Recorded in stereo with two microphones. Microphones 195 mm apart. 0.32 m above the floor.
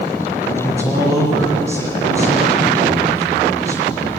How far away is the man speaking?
About 7.5 m.